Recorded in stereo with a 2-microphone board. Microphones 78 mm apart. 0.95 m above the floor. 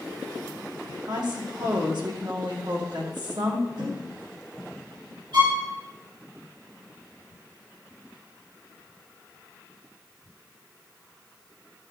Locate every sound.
1.1 s a woman speaking: 70° right (ahead or behind), 2.0 m
3.8 s a whoosh: 75° right (ahead or behind), 4 m
5.3 s a violin: 80° right, 5.5 m